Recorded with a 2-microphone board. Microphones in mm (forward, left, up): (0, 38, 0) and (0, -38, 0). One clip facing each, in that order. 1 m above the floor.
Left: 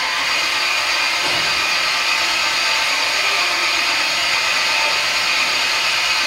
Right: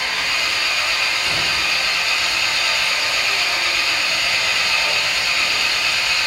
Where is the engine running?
75° left (ahead or behind), 2.5 m.